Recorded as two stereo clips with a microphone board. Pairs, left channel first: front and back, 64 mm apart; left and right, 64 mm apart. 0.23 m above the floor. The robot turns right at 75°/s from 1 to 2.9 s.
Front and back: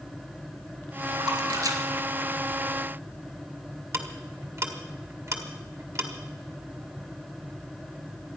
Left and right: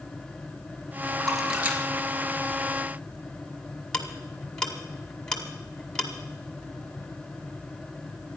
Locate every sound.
1.2 s a splash: 165° left, 2.5 m; by 3.1 s 65° right, 2.5 m
3.9 s ticking: 170° left, 1.9 m